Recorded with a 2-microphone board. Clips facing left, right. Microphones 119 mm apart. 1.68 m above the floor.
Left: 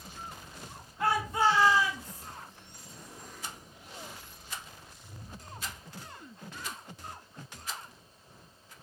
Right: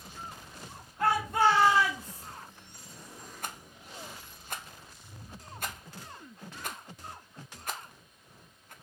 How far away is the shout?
About 2.5 m.